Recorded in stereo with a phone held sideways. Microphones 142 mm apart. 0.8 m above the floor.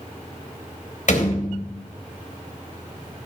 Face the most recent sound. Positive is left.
turn(degrees=65)  # may be behind; listen again after turning